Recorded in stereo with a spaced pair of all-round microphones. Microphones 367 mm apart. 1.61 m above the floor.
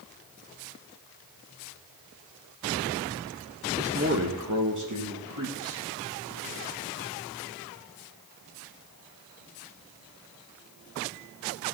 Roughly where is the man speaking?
Centre.